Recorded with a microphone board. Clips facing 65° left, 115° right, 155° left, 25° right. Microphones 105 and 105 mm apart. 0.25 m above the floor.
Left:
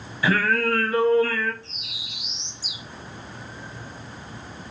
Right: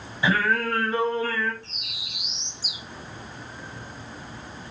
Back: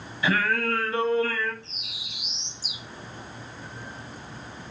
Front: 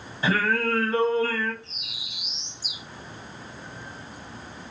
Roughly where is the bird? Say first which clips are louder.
Left 1 dB, even; right.